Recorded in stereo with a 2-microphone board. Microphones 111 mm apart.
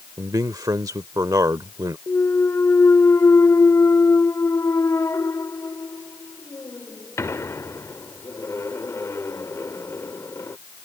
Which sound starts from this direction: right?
A man speaking, at 0.2 s.